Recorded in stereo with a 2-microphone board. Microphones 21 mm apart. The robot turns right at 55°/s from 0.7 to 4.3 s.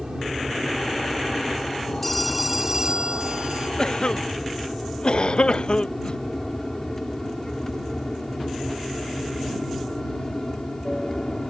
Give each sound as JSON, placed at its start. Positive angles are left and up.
{"t": 0.0, "sound": "an aircraft", "side_deg": -30}
{"t": 2.0, "sound": "a phone ringing", "azimuth_deg": 165}
{"t": 3.8, "sound": "a cough", "side_deg": 40}